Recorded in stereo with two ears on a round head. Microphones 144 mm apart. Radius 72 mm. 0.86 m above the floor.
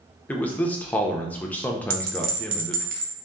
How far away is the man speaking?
About 0.6 m.